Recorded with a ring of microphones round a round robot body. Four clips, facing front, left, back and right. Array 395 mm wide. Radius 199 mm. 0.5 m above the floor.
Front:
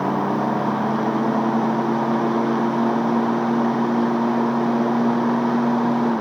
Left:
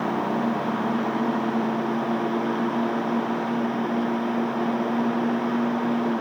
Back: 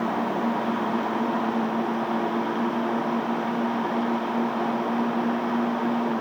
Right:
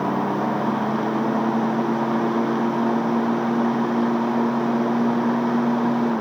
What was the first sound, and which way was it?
Only background noise.